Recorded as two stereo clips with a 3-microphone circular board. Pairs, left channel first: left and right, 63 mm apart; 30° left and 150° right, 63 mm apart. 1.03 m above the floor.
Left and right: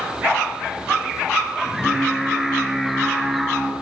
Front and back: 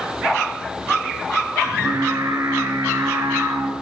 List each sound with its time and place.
1.6 s singing: straight behind, 8.5 m